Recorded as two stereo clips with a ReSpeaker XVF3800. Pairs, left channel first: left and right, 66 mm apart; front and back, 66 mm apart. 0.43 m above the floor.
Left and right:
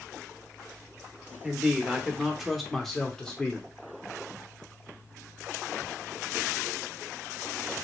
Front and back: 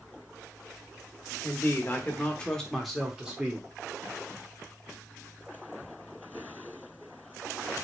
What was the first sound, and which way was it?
A man speaking, 20° right.